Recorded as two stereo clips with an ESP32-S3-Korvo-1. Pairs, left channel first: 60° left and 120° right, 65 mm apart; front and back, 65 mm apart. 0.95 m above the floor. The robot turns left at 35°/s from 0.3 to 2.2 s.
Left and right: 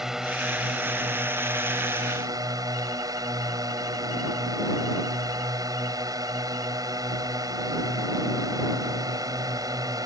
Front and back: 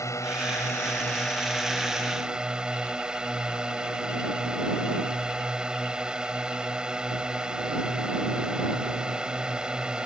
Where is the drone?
35° right; by 10.1 s 105° right.